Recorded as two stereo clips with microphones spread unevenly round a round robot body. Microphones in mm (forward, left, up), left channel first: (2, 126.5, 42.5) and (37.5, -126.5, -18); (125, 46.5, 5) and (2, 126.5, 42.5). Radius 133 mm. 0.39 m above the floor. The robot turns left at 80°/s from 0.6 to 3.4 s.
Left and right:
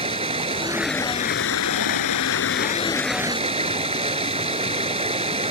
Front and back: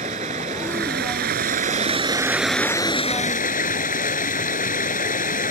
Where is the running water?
150° right; by 5.5 s 15° right.